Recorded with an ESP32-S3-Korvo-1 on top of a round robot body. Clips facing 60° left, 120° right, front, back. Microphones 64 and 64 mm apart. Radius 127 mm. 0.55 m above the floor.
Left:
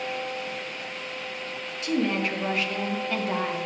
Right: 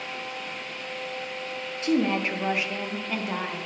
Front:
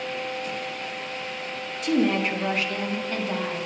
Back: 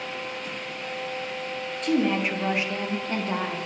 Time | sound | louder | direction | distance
1.8 | a woman speaking | right 2 dB, front 1 dB | 80° right | 1.4 m